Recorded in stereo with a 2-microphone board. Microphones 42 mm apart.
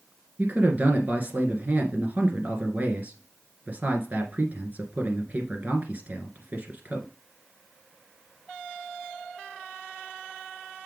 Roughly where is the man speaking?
Right.